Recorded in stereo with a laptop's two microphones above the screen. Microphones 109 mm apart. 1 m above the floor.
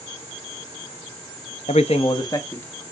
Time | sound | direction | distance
1.7 | a man speaking | 80° left | 0.8 m